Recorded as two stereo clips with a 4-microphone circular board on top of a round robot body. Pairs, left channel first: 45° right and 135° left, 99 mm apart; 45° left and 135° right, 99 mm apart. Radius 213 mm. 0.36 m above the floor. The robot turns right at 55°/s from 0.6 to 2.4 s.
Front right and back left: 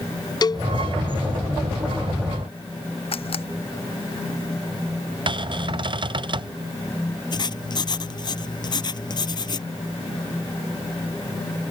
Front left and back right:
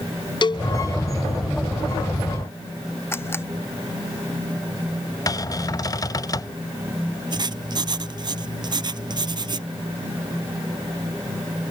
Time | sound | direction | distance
0.4 | a cowbell | 5° left | ?
3.1 | a camera shutter | 20° right | ?
5.3 | a cupboard door | 100° left | ?
7.3 | writing | 90° right | ?